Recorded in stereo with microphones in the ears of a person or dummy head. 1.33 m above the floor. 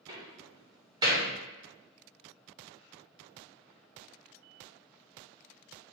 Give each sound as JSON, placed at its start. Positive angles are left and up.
{"t": 0.1, "sound": "a door slam", "side_deg": -15, "distance_m": 0.9}